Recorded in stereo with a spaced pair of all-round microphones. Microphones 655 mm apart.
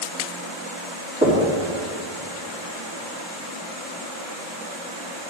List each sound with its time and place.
1.2 s knocking: 15° right (ahead or behind), 2.0 m